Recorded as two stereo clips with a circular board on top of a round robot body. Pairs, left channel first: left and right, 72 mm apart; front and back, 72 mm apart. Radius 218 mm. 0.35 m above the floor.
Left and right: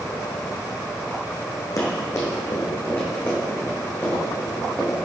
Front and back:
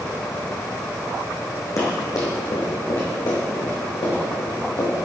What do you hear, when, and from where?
1.8 s running footsteps: 45° left, 2 m; by 4.9 s 20° left, 4.5 m